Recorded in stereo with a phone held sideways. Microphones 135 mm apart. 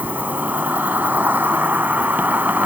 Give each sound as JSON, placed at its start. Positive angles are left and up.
{"t": 0.0, "sound": "an insect", "side_deg": -15}